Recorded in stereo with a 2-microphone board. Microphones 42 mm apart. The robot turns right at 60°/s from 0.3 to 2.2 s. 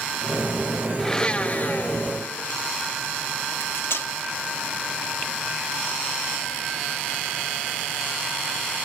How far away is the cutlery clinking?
About 0.9 m.